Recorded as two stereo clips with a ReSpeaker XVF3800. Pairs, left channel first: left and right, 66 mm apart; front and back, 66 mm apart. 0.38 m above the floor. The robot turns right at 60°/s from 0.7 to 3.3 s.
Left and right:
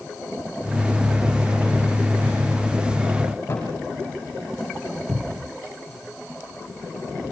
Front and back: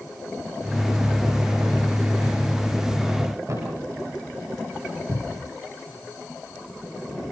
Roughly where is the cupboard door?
Ahead.